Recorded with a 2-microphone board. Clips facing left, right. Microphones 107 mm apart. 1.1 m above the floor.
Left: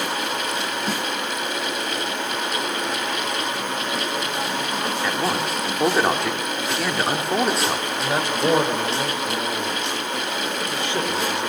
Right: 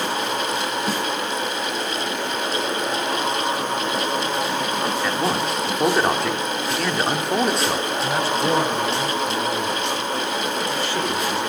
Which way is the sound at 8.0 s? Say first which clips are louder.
Left 1 dB; 20° left (ahead or behind).